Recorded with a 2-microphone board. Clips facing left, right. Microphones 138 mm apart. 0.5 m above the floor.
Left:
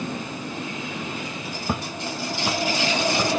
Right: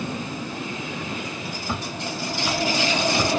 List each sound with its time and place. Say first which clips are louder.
1.7 s footsteps: left 2 dB; 50° left (ahead or behind), 0.7 m; by 3.4 s centre (ahead or behind), 1.2 m